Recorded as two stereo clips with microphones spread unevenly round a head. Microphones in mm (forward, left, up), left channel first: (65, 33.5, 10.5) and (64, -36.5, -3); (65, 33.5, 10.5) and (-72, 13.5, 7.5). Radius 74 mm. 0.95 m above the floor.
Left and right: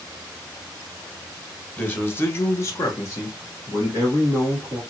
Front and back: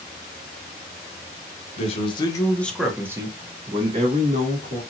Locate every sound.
1.8 s a man speaking: 20° left, 0.9 m; by 4.8 s 160° left, 1.6 m